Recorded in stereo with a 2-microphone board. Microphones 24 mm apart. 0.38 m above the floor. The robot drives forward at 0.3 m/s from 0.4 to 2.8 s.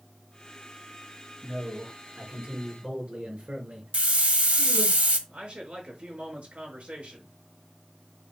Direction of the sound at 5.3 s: 80° right.